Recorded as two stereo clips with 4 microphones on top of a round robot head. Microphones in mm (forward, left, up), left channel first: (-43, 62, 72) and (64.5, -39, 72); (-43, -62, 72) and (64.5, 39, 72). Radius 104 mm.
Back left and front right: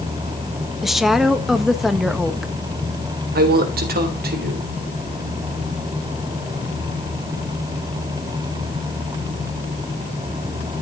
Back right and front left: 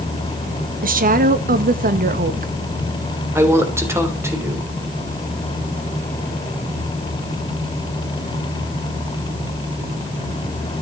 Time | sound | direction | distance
0.8 | a woman speaking | 45° left | 1.5 m
3.4 | a woman speaking | 30° right | 3.5 m